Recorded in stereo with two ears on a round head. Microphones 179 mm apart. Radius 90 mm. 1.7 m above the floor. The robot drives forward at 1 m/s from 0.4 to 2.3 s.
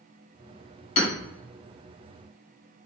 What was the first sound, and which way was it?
Hammering, 35° left (ahead or behind).